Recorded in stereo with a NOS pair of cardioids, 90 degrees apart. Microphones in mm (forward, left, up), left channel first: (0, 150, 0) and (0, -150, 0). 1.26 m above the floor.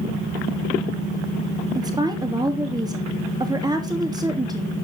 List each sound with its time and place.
1.8 s a woman speaking: 15° right, 2.5 m